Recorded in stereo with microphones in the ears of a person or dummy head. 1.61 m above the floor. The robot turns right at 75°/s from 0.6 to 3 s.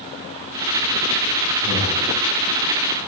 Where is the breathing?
15° right, 3 m; by 2.0 s 15° left, 3 m.